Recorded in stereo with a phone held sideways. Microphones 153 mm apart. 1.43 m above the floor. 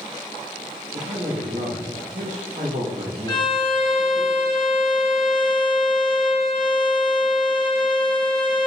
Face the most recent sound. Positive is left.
turn(degrees=25)  # may be behind; listen again after turning